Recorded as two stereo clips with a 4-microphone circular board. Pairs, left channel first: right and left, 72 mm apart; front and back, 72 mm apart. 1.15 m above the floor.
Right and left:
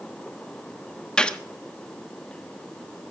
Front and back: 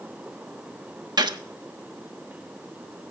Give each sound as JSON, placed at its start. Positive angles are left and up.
{"t": 1.2, "sound": "a gunshot", "azimuth_deg": -165, "distance_m": 1.1}